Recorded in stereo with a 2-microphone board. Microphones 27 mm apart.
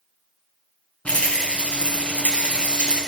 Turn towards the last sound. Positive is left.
turn(degrees=50)  # may be behind; listen again after turning